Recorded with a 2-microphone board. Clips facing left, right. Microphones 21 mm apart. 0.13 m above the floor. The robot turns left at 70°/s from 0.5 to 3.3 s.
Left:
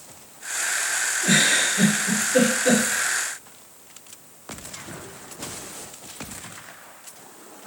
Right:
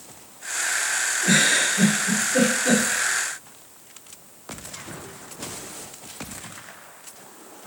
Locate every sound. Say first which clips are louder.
1.2 s a giggle: even; 10° right (ahead or behind), 2 m; by 2.8 s 50° left (ahead or behind), 2 m